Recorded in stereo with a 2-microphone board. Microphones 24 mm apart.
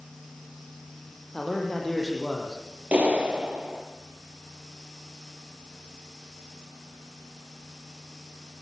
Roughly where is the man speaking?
Centre.